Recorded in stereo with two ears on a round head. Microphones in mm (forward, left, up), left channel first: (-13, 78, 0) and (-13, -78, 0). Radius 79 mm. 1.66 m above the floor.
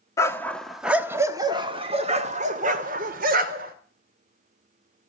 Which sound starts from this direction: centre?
A dog barking, at 0.2 s.